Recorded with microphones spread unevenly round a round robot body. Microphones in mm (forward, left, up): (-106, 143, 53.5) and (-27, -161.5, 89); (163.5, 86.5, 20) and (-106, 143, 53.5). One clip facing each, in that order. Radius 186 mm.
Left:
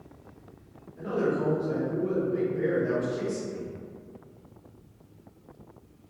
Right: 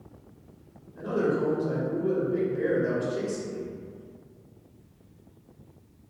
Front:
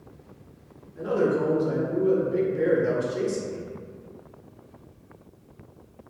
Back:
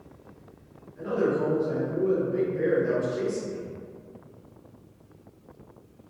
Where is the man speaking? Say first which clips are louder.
Right 1 dB, front 2 dB; 15° right, 0.8 m.